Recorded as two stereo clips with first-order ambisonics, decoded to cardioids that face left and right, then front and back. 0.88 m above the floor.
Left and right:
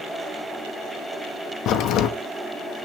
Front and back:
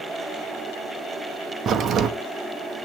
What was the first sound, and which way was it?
A crack, 130° left.